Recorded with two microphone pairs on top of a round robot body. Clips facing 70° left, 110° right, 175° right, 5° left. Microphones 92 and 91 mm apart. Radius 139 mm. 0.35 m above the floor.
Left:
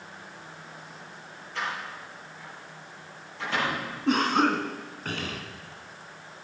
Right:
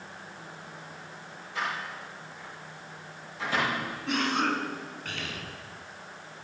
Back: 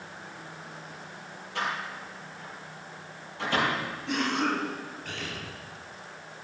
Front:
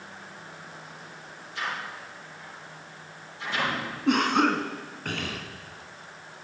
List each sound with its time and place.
1.6 s a door slam: 170° left, 9.5 m
4.1 s a cough: 25° left, 4 m